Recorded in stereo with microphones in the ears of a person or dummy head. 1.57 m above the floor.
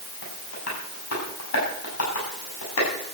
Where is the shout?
I don't hear a shout.